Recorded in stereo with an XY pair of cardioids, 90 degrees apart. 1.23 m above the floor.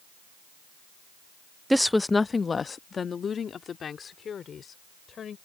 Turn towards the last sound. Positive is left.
turn(degrees=60)